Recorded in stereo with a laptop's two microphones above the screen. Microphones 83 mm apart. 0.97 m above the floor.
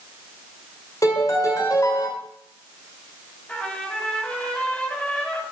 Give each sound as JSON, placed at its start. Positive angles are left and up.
{"t": 1.0, "sound": "a piano", "side_deg": 45, "distance_m": 2.0}
{"t": 3.5, "sound": "a trumpet", "side_deg": 15, "distance_m": 3.5}